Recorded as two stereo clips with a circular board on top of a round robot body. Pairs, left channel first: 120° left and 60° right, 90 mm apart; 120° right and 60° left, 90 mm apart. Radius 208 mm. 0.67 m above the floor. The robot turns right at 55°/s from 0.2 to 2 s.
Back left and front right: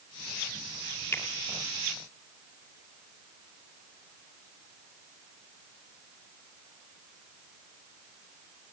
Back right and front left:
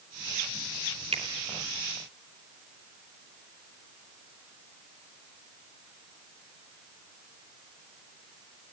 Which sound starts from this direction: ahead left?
A finger snap, at 1.1 s.